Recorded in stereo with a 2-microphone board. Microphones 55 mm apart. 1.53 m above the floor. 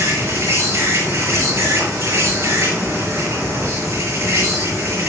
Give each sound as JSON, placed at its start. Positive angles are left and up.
{"t": 0.0, "sound": "an insect", "side_deg": -85, "distance_m": 7.5}